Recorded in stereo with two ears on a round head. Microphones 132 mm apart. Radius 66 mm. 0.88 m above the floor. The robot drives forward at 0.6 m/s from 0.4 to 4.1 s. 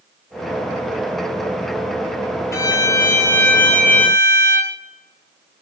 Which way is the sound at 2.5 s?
20° left (ahead or behind).